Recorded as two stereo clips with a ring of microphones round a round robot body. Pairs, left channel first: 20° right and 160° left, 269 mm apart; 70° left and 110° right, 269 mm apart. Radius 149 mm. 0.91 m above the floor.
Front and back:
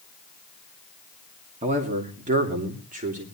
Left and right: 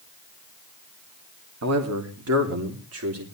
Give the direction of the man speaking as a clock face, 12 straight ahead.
5 o'clock.